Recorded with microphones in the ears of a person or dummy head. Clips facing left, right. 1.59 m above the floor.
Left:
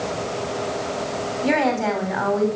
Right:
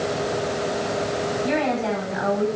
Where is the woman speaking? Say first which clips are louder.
Left 5 dB; 75° left (ahead or behind), 6.5 m.